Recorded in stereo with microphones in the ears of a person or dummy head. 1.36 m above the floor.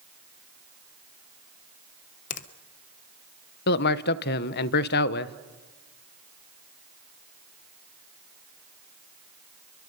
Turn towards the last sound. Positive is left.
turn(degrees=50)  # may be behind; listen again after turning